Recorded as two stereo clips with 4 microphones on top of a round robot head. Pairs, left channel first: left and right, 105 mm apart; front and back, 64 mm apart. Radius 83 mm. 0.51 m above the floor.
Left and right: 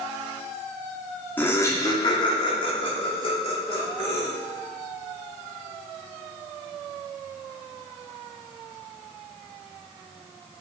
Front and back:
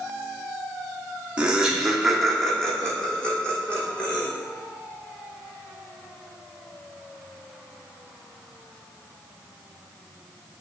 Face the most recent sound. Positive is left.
turn(degrees=70)